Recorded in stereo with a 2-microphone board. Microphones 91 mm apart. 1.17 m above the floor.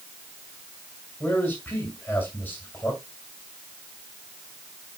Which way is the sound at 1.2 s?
20° left (ahead or behind).